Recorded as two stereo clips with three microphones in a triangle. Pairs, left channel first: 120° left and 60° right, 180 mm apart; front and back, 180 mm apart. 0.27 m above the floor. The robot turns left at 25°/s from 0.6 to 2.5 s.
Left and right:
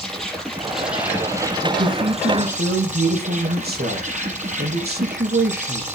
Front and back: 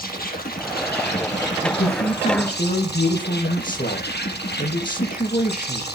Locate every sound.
0.0 s an insect: 30° left, 7.5 m; by 6.0 s 15° right, 7.5 m
1.6 s a man speaking: 15° right, 7 m; by 5.9 s 40° right, 7 m